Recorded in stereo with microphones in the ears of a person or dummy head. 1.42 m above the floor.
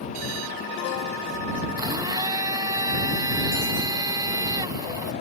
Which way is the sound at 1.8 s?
20° right (ahead or behind).